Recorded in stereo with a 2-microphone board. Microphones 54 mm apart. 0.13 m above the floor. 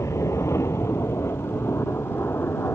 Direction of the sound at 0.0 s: 60° left (ahead or behind).